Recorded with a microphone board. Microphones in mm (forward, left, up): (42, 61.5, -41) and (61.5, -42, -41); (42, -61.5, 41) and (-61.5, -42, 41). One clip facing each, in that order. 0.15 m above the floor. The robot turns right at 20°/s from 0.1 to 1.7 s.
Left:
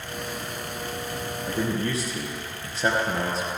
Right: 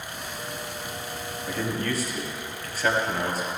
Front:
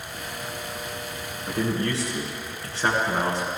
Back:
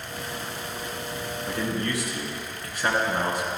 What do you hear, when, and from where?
1.5 s a man speaking: 35° left, 2.5 m; by 3.5 s 40° left, 2.5 m